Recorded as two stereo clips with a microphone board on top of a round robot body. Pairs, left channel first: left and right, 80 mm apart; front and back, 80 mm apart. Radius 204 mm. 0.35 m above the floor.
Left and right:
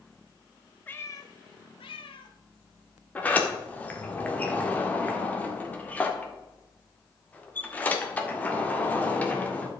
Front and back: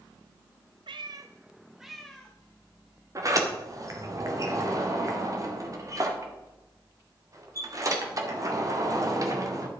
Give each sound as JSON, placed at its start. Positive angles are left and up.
{"t": 0.9, "sound": "a cat meowing", "azimuth_deg": 160, "distance_m": 0.5}
{"t": 3.1, "sound": "a sliding door", "azimuth_deg": 155, "distance_m": 2.0}